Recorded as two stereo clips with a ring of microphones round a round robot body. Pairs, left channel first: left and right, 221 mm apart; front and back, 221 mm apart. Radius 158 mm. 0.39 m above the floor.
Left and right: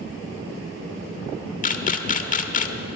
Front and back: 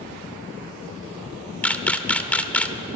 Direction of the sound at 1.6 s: 80° left.